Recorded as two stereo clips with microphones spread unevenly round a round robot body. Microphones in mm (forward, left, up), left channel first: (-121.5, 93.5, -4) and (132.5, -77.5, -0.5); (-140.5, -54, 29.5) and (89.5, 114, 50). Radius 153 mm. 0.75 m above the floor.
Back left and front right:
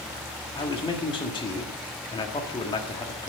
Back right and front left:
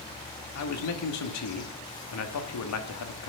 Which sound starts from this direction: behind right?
A man speaking, at 0.6 s.